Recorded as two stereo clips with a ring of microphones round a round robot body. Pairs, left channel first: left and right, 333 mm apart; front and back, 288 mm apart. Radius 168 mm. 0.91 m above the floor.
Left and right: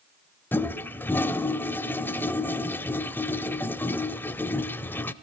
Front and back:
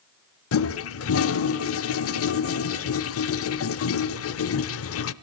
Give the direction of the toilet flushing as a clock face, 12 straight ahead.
12 o'clock.